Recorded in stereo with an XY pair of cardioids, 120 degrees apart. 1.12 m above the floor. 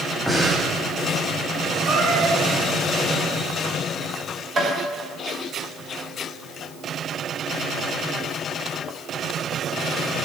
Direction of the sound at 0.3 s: 5° right.